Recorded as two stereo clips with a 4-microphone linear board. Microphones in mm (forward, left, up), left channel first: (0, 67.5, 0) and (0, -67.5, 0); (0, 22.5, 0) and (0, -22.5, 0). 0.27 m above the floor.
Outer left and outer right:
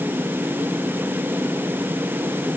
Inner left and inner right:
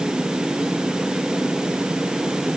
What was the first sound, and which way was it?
Only background noise.